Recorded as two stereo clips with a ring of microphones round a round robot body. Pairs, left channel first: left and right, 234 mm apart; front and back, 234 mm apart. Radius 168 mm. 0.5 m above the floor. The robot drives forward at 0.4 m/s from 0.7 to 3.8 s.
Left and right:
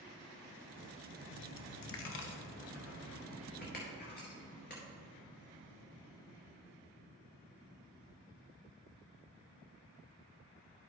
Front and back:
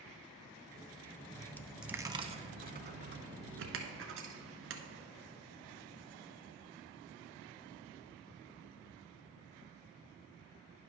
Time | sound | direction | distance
1.3 | a dropped coin | 70° left | 0.6 m